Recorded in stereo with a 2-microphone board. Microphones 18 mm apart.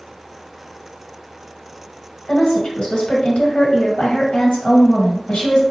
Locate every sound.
2.3 s a woman speaking: 70° left (ahead or behind), 1.7 m